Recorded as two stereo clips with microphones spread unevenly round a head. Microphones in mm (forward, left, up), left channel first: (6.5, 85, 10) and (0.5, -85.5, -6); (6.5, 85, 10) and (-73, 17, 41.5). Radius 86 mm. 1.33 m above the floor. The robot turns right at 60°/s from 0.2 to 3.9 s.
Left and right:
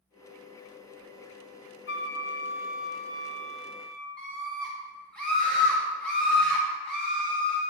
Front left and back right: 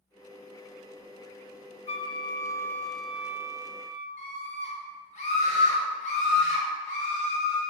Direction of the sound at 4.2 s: 5° left.